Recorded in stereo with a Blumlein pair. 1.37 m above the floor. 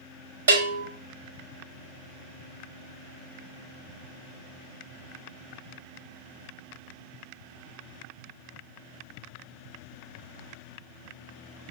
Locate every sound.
0.5 s a bell: 65° right, 0.8 m